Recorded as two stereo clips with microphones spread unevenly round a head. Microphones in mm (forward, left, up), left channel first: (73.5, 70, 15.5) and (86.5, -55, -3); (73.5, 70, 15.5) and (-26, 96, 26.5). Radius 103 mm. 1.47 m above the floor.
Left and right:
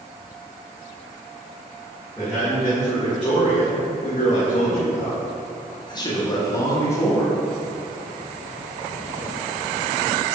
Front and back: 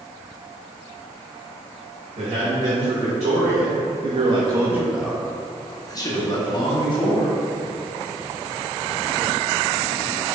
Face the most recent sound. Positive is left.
turn(degrees=25)